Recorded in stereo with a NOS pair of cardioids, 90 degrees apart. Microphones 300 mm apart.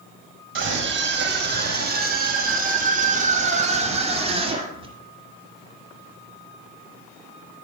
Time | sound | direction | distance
0.6 | a scream | 40° right | 7 m